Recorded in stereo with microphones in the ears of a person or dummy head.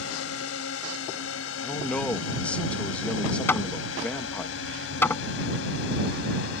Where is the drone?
75° left (ahead or behind); by 6.6 s 80° left.